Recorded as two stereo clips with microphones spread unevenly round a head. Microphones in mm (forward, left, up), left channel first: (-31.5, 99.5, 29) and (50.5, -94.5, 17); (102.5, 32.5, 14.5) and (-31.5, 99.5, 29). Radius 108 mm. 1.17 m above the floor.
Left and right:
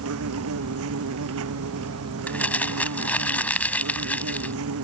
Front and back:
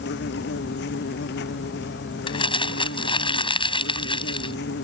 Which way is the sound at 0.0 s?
50° right.